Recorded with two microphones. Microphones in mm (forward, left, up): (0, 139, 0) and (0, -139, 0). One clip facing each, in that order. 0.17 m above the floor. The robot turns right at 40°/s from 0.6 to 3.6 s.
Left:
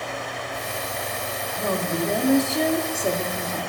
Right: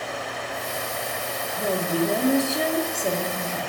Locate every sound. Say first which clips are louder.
1.6 s a woman speaking: right 2 dB; 10° right (ahead or behind), 1.0 m; by 3.7 s 15° left (ahead or behind), 1.0 m